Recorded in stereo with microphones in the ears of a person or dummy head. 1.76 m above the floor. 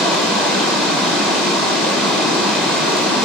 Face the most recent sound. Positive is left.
turn(degrees=5)  # may be behind; listen again after turning